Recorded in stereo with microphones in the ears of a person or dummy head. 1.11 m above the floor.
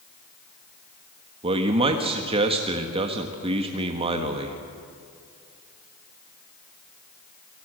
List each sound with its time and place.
1.4 s a man speaking: 30° right (ahead or behind), 1.3 m